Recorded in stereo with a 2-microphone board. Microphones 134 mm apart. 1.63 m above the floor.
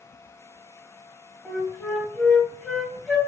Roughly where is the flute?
Centre.